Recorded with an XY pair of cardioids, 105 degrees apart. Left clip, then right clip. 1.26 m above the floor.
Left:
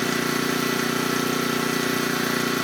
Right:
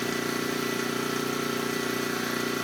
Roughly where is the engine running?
Ahead left.